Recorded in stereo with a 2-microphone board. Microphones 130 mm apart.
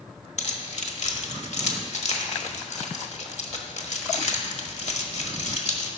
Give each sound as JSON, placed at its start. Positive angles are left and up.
{"t": 0.4, "sound": "keys jangling", "side_deg": 60, "distance_m": 1.2}